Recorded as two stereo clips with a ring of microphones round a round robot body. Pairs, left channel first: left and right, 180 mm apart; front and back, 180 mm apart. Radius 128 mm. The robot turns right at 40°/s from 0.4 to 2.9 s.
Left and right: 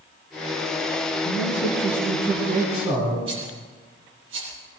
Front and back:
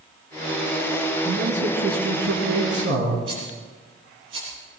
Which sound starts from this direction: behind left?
A man speaking, at 1.2 s.